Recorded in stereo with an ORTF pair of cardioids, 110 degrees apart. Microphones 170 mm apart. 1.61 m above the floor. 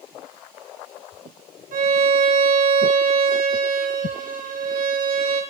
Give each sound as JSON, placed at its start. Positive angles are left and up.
{"t": 1.7, "sound": "a violin", "azimuth_deg": -50, "distance_m": 3.0}